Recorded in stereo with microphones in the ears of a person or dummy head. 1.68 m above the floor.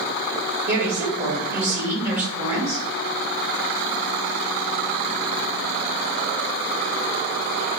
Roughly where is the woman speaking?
Centre.